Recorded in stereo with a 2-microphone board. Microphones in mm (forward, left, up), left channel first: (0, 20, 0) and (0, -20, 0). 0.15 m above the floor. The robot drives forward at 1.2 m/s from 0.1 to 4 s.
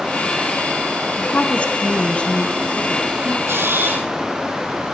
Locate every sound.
1.2 s a woman speaking: 35° left (ahead or behind), 1.6 m; by 3.4 s 15° left (ahead or behind), 3 m
3.5 s a camera shutter: 70° right (ahead or behind), 1.4 m; by 4.1 s 50° right (ahead or behind), 1.7 m